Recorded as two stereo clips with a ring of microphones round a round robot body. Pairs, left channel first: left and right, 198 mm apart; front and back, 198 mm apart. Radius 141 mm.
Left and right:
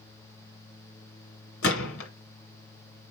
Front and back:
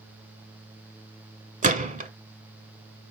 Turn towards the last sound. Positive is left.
turn(degrees=130)